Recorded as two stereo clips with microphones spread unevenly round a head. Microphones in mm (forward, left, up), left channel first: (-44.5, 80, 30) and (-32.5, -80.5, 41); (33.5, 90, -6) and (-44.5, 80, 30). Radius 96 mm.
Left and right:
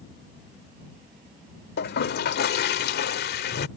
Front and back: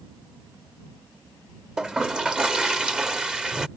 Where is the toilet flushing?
115° left.